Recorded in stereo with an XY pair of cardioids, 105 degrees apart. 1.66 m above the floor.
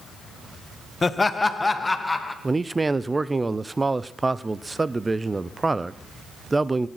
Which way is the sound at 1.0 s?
25° left.